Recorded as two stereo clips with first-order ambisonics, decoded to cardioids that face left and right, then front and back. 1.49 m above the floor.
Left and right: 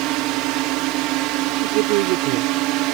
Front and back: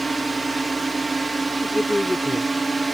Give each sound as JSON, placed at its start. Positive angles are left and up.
{"t": 0.0, "sound": "a drone", "azimuth_deg": -100}
{"t": 1.6, "sound": "a woman speaking", "azimuth_deg": -85}